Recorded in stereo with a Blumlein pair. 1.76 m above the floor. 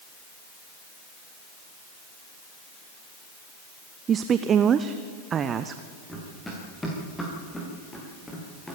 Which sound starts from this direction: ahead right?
A woman speaking, at 4.1 s.